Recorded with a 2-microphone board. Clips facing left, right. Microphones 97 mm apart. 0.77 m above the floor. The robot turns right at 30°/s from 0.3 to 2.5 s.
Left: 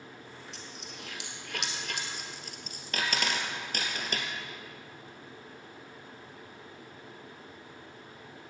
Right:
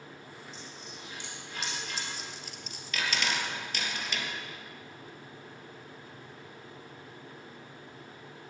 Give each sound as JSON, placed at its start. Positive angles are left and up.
{"t": 0.5, "sound": "a dropped coin", "side_deg": 70, "distance_m": 2.0}